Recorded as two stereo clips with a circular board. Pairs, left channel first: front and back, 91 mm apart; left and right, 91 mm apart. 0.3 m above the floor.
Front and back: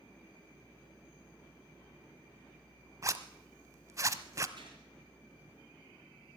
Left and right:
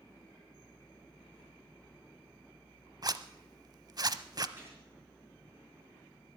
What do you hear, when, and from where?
3.0 s a zipper: 130° right, 0.6 m
4.6 s a gunshot: 155° right, 6 m